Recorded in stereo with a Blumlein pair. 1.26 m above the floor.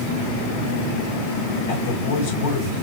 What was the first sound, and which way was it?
A man speaking, 55° left.